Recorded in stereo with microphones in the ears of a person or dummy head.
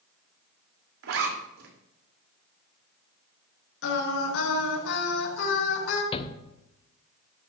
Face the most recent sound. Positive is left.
turn(degrees=30)  # may be behind; listen again after turning